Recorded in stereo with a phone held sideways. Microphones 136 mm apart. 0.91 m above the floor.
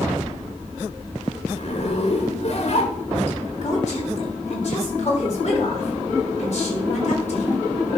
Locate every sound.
1.5 s a zipper: 50° left (ahead or behind), 2 m
3.6 s a woman speaking: 55° left (ahead or behind), 4 m